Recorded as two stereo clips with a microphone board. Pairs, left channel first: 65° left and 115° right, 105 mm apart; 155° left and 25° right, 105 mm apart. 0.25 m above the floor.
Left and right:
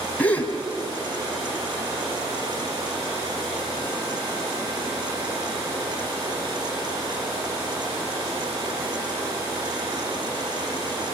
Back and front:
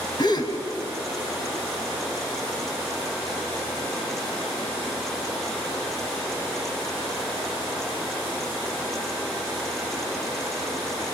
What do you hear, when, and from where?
0.2 s a gasp: 135° left, 1.8 m